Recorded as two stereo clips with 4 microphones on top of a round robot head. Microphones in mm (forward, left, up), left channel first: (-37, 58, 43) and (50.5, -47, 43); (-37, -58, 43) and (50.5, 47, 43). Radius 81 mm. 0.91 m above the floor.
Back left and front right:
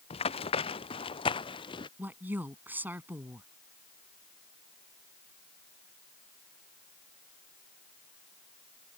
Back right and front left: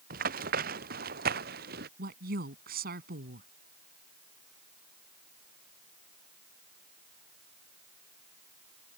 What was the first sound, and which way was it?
Running footsteps, 80° left.